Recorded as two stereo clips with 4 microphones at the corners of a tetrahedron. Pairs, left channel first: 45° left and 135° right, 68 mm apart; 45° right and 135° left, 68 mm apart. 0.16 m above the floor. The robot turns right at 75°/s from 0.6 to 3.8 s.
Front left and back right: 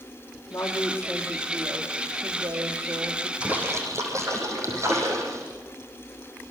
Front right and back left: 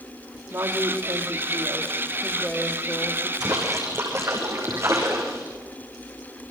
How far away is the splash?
About 7 m.